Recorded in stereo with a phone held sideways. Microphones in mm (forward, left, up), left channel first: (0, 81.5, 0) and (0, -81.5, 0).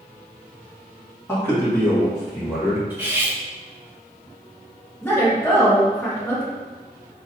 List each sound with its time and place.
1.3 s a man speaking: 15° left (ahead or behind), 1.7 m; by 2.8 s 5° right (ahead or behind), 2.5 m
2.9 s cutlery clinking: 10° right (ahead or behind), 1.0 m
5.0 s a woman speaking: 15° left (ahead or behind), 1.7 m